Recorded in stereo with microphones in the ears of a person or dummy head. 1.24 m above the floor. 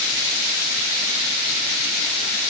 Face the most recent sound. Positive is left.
No sound to turn to.